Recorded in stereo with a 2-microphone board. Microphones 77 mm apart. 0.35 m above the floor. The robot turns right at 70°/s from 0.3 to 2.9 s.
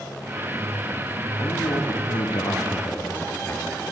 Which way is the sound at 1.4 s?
50° left.